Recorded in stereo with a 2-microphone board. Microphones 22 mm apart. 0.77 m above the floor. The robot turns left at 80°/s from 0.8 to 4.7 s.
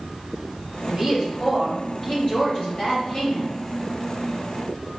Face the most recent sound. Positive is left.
turn(degrees=-80)